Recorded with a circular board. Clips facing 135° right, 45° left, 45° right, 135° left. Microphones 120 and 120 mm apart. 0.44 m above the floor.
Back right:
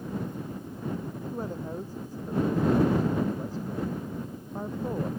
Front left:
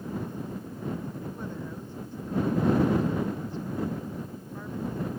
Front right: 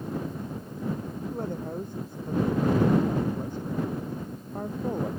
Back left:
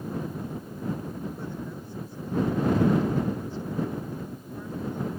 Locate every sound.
1.3 s a woman speaking: 85° right